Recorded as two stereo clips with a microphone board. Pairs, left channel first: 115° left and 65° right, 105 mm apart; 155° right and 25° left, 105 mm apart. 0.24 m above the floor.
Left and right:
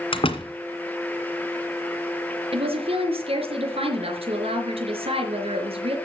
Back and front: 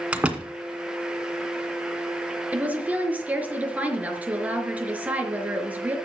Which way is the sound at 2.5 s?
55° right.